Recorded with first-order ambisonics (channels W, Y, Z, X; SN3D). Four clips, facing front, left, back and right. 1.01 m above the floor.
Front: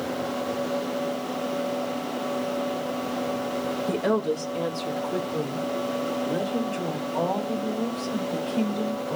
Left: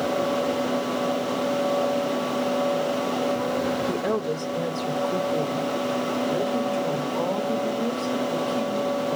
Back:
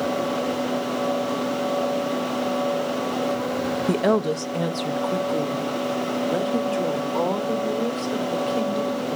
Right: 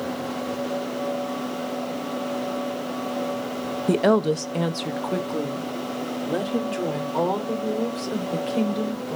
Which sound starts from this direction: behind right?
A woman speaking, at 3.9 s.